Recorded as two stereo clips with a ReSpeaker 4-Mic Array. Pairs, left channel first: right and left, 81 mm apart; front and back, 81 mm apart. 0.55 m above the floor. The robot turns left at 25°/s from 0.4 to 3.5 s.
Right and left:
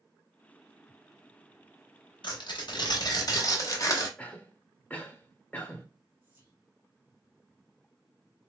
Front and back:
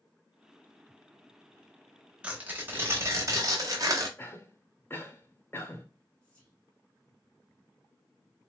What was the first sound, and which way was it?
Tearing paper, 105° right.